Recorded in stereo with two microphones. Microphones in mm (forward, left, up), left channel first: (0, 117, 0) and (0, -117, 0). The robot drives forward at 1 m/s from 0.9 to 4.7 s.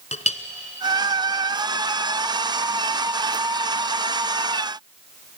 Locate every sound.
0.1 s a clink: 30° left (ahead or behind), 1.0 m